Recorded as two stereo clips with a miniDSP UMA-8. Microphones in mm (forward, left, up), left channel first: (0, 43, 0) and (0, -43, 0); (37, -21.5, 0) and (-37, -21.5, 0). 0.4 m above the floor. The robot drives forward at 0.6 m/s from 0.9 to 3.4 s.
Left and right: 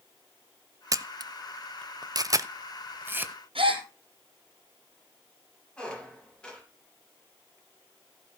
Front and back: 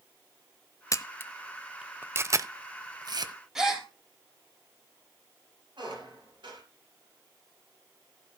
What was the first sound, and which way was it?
A camera shutter, 45° right.